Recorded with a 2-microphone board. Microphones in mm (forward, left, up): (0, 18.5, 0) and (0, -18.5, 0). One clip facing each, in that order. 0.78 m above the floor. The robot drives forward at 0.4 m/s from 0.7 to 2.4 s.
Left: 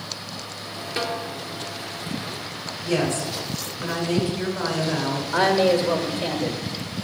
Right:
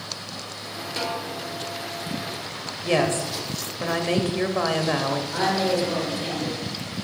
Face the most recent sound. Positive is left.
turn(degrees=35)  # may be behind; listen again after turning